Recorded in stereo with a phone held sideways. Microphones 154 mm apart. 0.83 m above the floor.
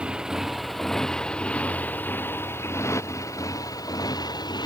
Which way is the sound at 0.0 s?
5° right (ahead or behind).